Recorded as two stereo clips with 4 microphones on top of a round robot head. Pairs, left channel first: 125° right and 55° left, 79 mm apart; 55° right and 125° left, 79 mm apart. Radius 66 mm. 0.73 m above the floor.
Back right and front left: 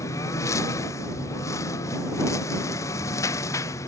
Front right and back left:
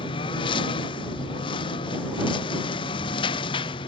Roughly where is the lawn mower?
Right.